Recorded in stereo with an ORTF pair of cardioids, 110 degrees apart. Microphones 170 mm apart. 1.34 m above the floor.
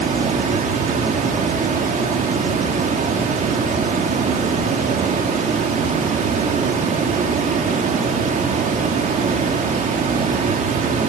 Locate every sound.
0.0 s running water: 50° right, 1.7 m